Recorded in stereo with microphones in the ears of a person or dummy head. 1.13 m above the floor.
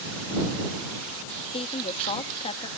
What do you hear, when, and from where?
1.5 s a woman speaking: 30° left (ahead or behind)